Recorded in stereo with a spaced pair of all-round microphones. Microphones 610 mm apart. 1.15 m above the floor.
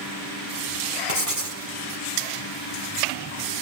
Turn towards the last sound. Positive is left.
turn(degrees=-60)  # may be behind; listen again after turning